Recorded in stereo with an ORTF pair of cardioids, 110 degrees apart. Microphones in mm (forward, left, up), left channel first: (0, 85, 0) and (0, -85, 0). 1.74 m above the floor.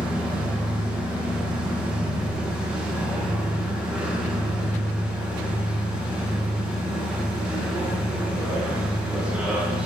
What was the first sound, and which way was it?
A machine running, 5° right.